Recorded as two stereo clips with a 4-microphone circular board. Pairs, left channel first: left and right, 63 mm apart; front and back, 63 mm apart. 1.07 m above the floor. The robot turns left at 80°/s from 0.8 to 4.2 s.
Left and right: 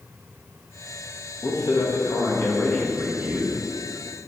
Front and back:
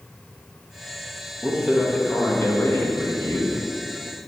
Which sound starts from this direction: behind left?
A man speaking, at 1.4 s.